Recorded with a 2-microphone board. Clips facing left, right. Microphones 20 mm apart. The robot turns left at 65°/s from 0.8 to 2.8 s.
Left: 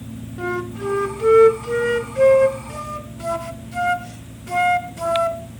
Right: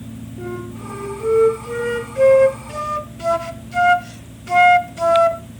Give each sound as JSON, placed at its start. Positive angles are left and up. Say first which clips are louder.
{"t": 0.4, "sound": "a flute", "louder": "left 6 dB", "azimuth_deg": 85, "distance_m": 0.9}